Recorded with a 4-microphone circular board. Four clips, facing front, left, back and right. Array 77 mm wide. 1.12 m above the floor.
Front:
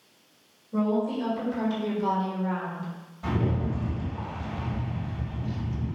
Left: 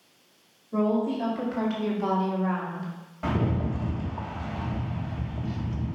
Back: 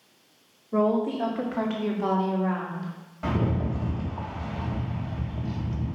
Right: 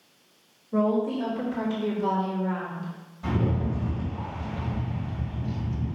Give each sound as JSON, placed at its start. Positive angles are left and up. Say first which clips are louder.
{"t": 0.7, "sound": "a woman speaking", "louder": "right 1 dB, back 2 dB", "azimuth_deg": 175, "distance_m": 2.5}
{"t": 3.2, "sound": "a rattle", "louder": "even, back 1 dB", "azimuth_deg": 125, "distance_m": 1.8}